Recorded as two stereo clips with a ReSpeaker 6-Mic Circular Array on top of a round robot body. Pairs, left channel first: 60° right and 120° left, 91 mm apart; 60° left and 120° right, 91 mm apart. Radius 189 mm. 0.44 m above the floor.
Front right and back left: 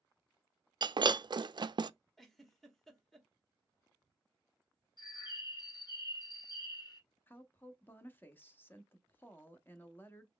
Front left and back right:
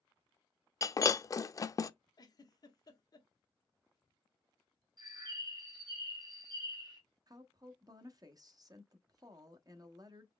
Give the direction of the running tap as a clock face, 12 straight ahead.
No running tap in this recording.